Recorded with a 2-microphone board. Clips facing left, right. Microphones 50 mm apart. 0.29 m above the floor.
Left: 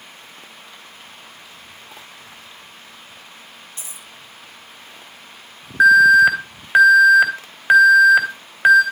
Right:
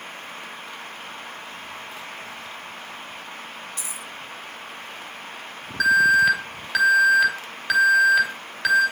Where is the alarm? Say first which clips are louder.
Left 7 dB; 30° left (ahead or behind), 2.5 m.